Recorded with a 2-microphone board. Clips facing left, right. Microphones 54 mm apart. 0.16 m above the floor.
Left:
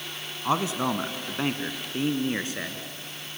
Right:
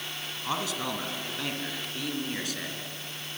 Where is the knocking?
No knocking in this recording.